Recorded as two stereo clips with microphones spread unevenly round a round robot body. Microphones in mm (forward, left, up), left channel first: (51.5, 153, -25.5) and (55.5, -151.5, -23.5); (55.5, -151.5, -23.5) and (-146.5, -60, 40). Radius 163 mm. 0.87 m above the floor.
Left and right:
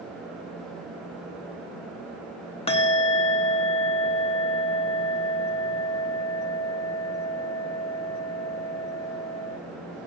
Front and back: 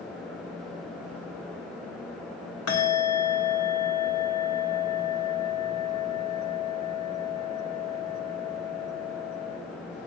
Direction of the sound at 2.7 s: 20° left.